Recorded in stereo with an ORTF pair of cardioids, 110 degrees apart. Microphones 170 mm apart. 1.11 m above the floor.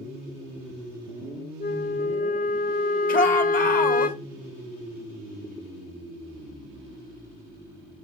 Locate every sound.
1.6 s a flute: 60° left, 1.1 m
3.1 s a shout: 55° left, 2 m